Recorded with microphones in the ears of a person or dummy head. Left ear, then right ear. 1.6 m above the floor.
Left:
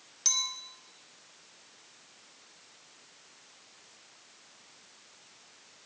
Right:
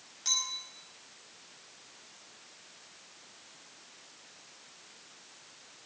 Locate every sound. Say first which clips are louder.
0.2 s a clink: left 2 dB; 25° left (ahead or behind), 4 m